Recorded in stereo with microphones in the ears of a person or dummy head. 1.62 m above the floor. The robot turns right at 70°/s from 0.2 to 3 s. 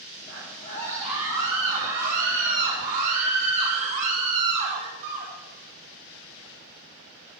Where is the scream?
125° left, 6.5 m; by 5.3 s 45° right, 6.5 m.